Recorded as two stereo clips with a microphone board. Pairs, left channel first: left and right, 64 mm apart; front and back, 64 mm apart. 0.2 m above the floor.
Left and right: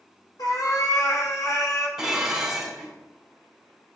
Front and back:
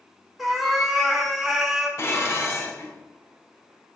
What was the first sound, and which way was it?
A cat meowing, 95° left.